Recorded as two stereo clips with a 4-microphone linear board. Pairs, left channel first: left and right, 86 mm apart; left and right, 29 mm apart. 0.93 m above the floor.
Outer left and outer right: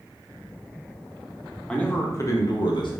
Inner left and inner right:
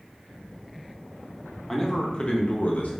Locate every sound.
1.7 s a man speaking: 10° left (ahead or behind), 0.6 m; by 2.9 s 65° left (ahead or behind), 0.6 m